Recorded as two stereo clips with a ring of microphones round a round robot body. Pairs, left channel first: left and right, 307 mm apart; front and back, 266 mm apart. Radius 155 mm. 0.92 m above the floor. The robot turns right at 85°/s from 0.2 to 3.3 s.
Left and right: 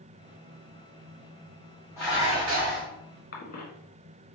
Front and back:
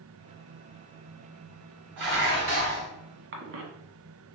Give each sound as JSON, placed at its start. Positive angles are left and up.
{"t": 2.0, "sound": "dishes clattering", "azimuth_deg": 170, "distance_m": 2.0}
{"t": 3.3, "sound": "a cough", "azimuth_deg": 145, "distance_m": 1.3}